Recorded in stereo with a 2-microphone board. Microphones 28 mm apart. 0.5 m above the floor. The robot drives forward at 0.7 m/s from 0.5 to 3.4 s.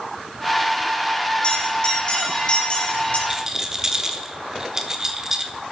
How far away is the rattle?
About 1.0 m.